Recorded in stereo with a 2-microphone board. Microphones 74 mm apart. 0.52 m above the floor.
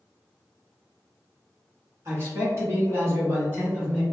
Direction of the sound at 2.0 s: 40° right (ahead or behind).